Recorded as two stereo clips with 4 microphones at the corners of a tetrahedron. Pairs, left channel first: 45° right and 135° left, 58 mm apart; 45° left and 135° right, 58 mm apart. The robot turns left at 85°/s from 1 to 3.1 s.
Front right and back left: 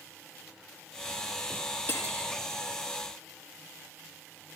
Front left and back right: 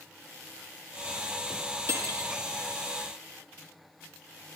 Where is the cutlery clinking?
95° right, 5.5 m; by 2.3 s 130° right, 5.5 m.